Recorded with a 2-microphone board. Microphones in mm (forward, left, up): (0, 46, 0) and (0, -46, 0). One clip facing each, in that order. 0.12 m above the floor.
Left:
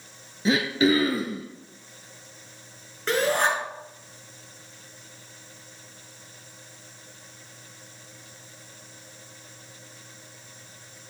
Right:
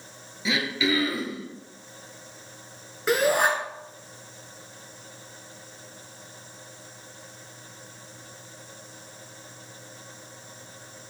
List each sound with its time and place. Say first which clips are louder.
0.5 s throat clearing: left 5 dB; 45° left (ahead or behind), 1.1 m
3.1 s a shout: right 1 dB; 10° right (ahead or behind), 1.7 m